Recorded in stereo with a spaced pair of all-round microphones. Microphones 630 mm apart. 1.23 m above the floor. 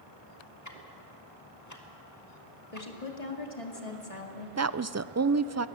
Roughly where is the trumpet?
No trumpet in this recording.